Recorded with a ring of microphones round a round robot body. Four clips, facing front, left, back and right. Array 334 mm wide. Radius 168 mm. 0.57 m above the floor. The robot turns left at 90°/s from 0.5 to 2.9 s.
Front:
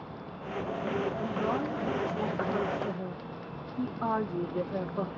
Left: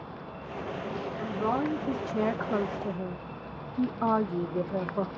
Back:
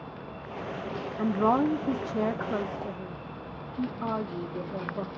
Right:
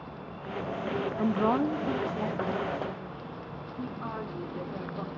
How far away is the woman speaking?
About 1.1 m.